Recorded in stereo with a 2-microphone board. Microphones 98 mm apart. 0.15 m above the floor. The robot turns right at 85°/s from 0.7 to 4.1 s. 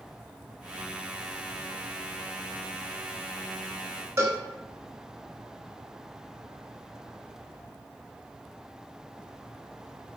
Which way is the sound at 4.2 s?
35° right (ahead or behind).